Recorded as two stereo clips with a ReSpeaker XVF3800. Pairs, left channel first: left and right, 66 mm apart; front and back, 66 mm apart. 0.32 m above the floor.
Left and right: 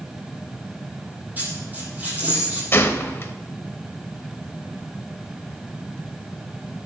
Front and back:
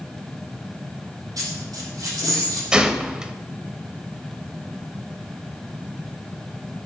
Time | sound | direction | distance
1.4 | a dropped coin | 155° right | 4.5 m
2.7 | a gunshot | 110° left | 0.8 m